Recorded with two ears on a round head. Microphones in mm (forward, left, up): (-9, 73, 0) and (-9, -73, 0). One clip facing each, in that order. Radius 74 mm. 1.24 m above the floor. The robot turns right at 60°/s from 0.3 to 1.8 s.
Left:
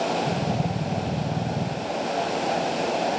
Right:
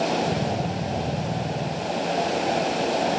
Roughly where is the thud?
No thud in this recording.